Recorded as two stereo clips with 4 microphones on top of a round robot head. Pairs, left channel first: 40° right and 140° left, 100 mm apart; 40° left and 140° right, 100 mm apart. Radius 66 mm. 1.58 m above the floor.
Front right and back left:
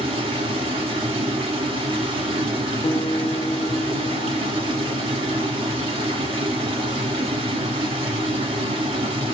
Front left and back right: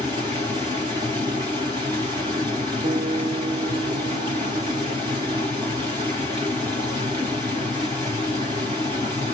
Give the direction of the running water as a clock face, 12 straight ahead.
6 o'clock.